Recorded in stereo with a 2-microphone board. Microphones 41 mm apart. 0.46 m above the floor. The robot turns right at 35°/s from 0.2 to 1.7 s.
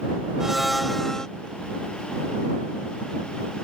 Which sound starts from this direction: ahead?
A blender, at 0.4 s.